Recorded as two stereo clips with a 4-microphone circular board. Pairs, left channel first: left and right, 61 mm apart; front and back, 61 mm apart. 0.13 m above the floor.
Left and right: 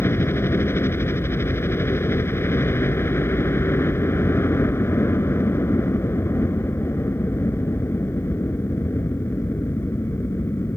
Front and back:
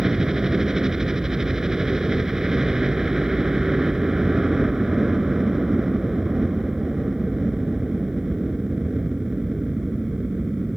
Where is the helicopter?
100° left.